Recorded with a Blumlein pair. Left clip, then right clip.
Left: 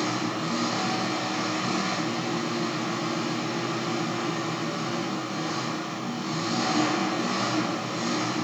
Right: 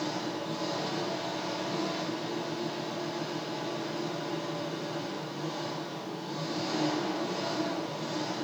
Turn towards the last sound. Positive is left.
turn(degrees=40)